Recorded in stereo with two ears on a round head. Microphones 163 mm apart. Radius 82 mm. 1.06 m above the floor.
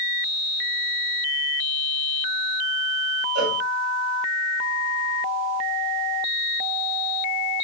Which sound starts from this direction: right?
A cowbell, at 3.4 s.